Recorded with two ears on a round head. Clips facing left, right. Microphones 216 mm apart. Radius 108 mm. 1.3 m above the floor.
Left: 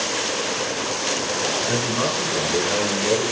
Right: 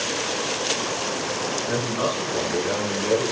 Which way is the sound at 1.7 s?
80° left.